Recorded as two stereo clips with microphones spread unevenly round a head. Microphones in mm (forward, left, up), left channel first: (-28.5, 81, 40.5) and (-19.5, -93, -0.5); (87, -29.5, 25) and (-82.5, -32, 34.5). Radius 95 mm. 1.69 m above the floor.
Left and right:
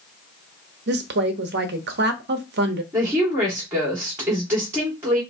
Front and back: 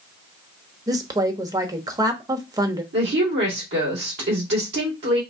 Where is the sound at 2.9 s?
165° right, 2.0 m.